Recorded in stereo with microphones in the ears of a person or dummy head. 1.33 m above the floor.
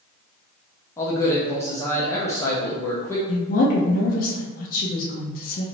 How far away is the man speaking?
About 0.6 m.